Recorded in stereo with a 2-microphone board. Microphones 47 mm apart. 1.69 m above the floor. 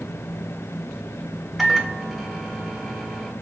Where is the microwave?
Centre (ahead or behind), 1.5 m.